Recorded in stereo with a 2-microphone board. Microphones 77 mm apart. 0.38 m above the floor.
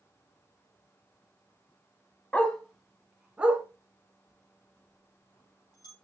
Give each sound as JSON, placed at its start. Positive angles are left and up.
{"t": 2.3, "sound": "a dog barking", "side_deg": 20, "distance_m": 1.1}
{"t": 4.3, "sound": "a bell", "side_deg": 55, "distance_m": 4.0}